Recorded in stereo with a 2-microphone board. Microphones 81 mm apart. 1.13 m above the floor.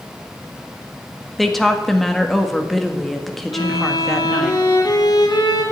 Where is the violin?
60° left (ahead or behind), 2.5 m.